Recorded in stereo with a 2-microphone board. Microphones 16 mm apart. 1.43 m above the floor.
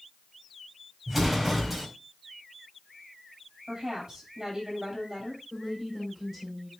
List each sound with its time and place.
1.1 s an explosion: 5° right (ahead or behind), 4 m
3.7 s a woman speaking: 35° right (ahead or behind), 8.5 m
5.5 s a woman speaking: 15° right (ahead or behind), 5 m